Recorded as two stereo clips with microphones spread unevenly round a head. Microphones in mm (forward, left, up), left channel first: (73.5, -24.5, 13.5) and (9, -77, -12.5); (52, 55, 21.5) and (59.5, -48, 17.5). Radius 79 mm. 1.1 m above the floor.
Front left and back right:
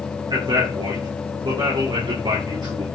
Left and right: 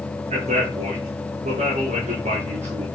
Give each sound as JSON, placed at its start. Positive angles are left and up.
{"t": 0.3, "sound": "a man speaking", "azimuth_deg": -105, "distance_m": 3.5}